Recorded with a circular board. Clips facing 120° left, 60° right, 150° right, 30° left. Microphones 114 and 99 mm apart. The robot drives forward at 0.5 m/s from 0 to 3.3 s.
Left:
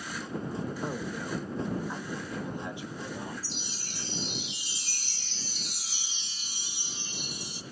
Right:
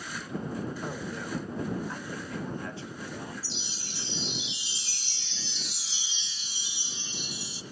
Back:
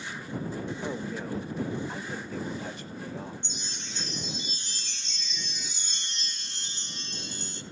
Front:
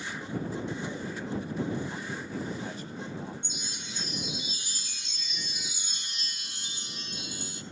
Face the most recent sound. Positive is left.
turn(degrees=110)